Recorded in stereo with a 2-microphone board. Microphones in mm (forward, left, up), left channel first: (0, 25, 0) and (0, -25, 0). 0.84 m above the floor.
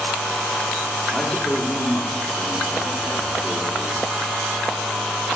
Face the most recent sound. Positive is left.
turn(degrees=10)  # may be behind; listen again after turning